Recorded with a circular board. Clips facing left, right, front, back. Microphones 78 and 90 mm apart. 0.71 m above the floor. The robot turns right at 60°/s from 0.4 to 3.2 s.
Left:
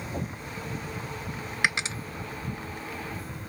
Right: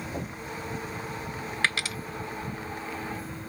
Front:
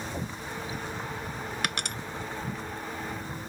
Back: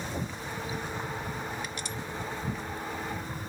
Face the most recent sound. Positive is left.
turn(degrees=105)